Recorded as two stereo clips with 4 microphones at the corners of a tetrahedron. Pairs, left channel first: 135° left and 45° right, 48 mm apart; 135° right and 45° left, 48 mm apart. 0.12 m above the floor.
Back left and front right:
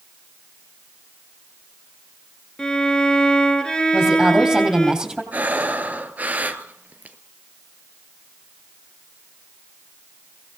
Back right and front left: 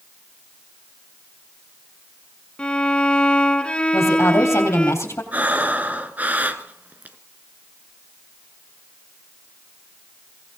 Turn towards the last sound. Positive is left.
turn(degrees=0)